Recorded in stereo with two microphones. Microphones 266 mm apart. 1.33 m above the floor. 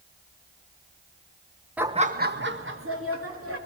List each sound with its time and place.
1.8 s laughter: 5° right (ahead or behind), 0.7 m; by 3.6 s 55° right (ahead or behind), 3 m